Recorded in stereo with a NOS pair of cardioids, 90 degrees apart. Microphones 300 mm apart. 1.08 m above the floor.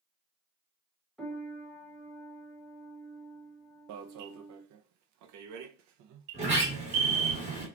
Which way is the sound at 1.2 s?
Straight ahead.